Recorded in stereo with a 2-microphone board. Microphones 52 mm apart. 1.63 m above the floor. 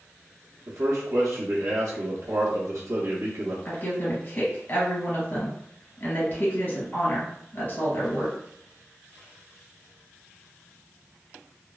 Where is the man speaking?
70° right (ahead or behind), 0.6 m.